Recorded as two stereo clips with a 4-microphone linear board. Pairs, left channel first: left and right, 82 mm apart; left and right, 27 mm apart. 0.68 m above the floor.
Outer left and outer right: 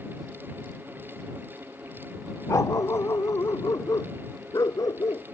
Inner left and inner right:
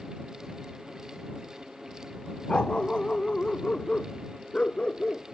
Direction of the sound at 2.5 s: 40° left (ahead or behind).